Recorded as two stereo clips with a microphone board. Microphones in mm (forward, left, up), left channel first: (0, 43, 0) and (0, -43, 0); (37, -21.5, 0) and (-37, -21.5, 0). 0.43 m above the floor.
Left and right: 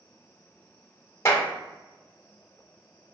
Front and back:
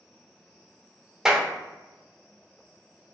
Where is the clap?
105° left, 0.6 m.